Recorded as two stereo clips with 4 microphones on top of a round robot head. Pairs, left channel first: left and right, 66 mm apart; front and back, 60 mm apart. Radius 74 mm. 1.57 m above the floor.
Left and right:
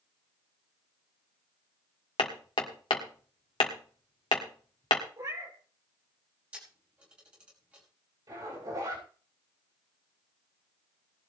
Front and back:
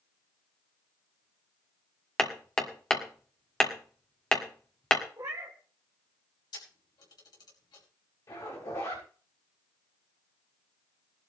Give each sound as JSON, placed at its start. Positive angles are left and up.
{"t": 2.2, "sound": "hammering", "azimuth_deg": 75, "distance_m": 1.6}
{"t": 5.2, "sound": "a cat meowing", "azimuth_deg": -125, "distance_m": 2.5}
{"t": 6.5, "sound": "a camera shutter", "azimuth_deg": -15, "distance_m": 5.0}
{"t": 8.3, "sound": "a zipper", "azimuth_deg": -45, "distance_m": 6.5}